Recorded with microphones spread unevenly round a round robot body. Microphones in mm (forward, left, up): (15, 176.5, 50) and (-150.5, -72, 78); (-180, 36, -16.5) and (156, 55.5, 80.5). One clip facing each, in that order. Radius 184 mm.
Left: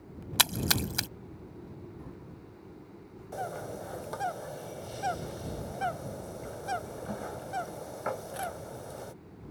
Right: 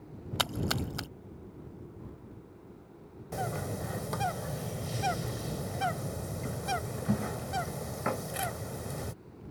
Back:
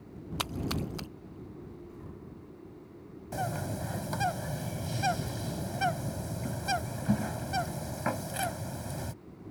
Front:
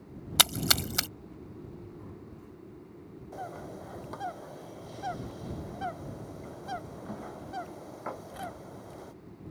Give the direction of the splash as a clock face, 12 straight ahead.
12 o'clock.